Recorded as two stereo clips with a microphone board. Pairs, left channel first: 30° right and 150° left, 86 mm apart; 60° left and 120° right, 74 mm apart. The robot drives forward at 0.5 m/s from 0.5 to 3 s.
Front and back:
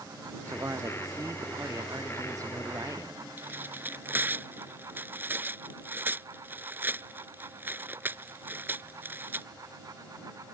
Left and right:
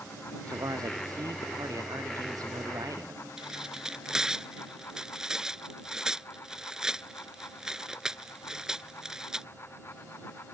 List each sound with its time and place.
0.5 s a man speaking: 155° right; by 3.3 s 160° right
3.4 s tearing paper: 170° left